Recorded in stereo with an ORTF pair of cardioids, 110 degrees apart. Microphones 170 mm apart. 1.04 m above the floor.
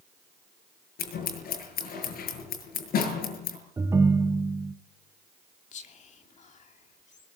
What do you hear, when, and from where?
1.0 s scissors: 60° left, 7.5 m
3.8 s a ringtone: 15° right, 1.2 m
5.7 s whispering: 45° left, 3 m